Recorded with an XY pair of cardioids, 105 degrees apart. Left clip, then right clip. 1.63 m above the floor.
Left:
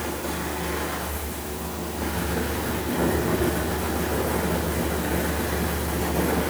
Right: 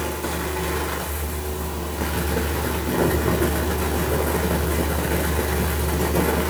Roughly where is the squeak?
I don't hear a squeak.